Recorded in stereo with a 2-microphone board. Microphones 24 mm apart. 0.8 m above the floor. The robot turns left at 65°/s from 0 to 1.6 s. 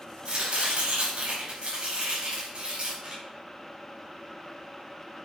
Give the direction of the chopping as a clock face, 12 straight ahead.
2 o'clock.